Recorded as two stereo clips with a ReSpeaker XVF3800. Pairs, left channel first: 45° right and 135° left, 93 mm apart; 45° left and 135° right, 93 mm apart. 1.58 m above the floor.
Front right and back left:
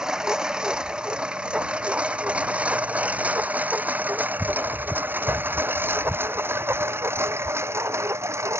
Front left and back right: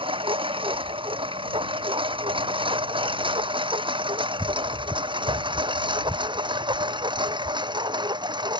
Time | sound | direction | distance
0.0 | a lawn mower | 145° right | ?